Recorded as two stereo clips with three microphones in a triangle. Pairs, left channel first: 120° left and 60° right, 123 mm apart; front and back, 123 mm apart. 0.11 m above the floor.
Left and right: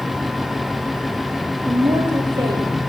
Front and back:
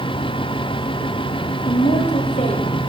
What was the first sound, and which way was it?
A woman speaking, 10° right.